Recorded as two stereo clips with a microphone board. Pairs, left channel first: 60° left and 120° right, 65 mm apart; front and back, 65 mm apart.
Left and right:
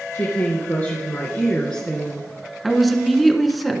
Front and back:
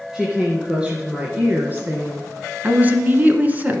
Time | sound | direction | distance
0.1 | a woman speaking | 100° left | 2 m
2.6 | a woman speaking | 150° left | 1.4 m